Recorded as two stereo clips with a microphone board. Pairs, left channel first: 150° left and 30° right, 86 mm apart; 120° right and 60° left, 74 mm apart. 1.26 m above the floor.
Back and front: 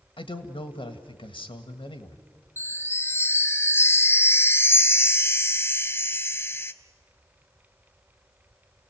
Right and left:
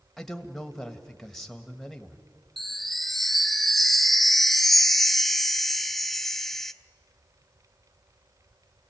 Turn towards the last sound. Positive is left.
turn(degrees=155)